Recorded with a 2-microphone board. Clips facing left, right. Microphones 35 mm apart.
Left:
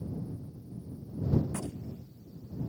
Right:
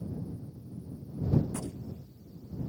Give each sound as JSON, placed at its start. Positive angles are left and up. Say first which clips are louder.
{"t": 1.5, "sound": "a gunshot", "louder": "even", "side_deg": 30}